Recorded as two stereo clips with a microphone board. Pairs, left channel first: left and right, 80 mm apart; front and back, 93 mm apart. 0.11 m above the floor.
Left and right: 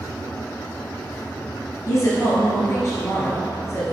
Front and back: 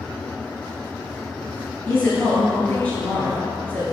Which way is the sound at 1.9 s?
65° left.